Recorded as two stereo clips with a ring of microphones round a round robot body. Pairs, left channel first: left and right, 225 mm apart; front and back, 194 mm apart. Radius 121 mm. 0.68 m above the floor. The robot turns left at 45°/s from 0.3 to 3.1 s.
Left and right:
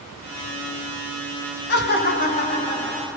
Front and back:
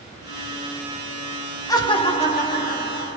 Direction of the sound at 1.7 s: 70° left.